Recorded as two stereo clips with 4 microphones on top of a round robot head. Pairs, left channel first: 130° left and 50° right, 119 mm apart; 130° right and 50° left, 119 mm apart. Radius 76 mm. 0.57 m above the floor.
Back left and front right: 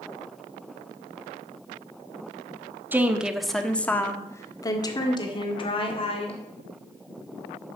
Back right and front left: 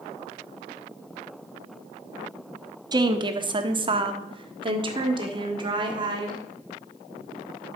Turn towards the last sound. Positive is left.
turn(degrees=100)